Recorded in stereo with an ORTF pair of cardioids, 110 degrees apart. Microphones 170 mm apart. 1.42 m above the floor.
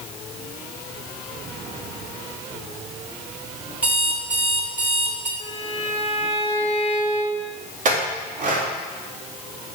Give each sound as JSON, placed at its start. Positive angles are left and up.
{"t": 3.8, "sound": "an alarm clock", "azimuth_deg": -10, "distance_m": 2.0}
{"t": 5.4, "sound": "a violin", "azimuth_deg": 35, "distance_m": 1.8}
{"t": 7.8, "sound": "a clink", "azimuth_deg": -55, "distance_m": 2.0}